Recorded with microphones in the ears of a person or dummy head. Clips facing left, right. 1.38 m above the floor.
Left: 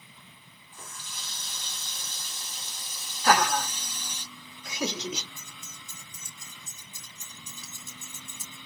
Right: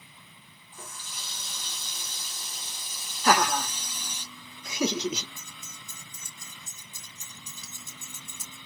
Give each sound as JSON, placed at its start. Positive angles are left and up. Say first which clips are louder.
{"t": 0.7, "sound": "a running tap", "louder": "right 1 dB", "side_deg": -5, "distance_m": 0.7}
{"t": 3.2, "sound": "laughter", "louder": "even", "side_deg": -85, "distance_m": 1.2}
{"t": 5.4, "sound": "keys jangling", "louder": "even", "side_deg": -75, "distance_m": 2.5}